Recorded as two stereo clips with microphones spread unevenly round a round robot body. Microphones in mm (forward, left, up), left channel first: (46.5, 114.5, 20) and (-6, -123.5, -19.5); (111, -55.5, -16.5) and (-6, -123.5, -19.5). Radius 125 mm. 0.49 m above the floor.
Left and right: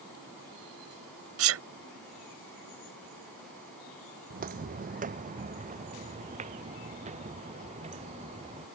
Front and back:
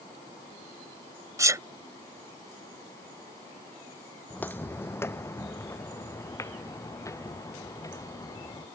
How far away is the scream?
I don't hear a scream.